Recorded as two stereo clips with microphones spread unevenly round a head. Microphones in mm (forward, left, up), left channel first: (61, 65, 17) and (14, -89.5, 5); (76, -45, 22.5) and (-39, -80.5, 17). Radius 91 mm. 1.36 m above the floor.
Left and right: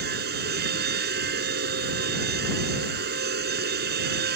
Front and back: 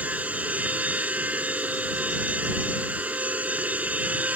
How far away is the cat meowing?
I don't hear a cat meowing.